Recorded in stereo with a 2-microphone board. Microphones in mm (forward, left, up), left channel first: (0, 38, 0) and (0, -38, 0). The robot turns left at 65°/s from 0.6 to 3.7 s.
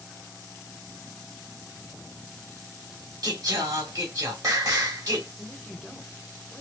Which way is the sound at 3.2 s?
90° right.